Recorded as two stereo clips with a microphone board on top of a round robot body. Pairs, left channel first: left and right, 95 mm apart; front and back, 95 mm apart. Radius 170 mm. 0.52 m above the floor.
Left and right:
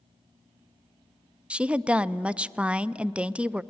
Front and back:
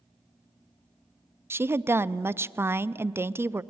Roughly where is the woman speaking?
Behind right.